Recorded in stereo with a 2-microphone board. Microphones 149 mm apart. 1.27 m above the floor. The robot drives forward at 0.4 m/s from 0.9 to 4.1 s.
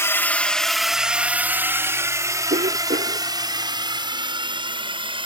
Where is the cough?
80° right; by 3.3 s 75° right (ahead or behind).